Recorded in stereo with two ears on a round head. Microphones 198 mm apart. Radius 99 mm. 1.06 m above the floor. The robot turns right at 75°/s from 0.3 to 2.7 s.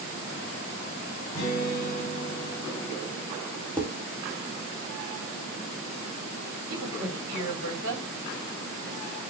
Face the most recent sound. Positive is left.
turn(degrees=-70)  # may be behind; listen again after turning